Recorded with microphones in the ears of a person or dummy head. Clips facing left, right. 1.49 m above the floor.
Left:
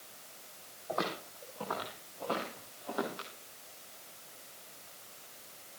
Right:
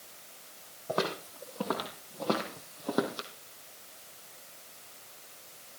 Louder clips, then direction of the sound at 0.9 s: Right 4 dB; 45° right (ahead or behind).